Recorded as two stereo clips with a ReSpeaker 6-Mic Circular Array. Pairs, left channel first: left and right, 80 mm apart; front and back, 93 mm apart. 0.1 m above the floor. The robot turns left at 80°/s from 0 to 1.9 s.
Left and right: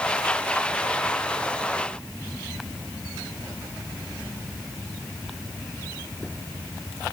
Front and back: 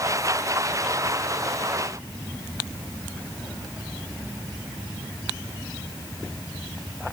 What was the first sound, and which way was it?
Only background noise.